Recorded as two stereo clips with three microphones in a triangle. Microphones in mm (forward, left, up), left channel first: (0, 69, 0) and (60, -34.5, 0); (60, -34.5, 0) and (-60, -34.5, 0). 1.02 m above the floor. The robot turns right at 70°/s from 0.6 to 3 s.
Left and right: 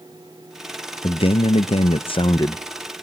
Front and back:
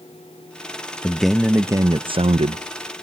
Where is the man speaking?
75° left, 0.5 m; by 2.6 s 175° right, 0.5 m.